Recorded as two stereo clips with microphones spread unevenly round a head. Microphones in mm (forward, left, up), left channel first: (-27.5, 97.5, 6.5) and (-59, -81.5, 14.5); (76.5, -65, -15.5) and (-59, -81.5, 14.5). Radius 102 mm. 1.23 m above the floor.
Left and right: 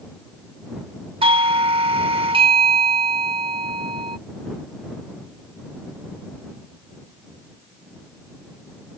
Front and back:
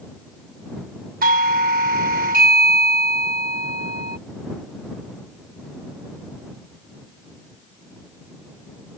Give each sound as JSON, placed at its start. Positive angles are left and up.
{"t": 1.2, "sound": "a doorbell", "azimuth_deg": -160}